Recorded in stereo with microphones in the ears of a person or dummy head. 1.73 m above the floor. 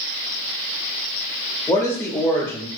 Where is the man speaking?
15° left (ahead or behind), 0.5 m.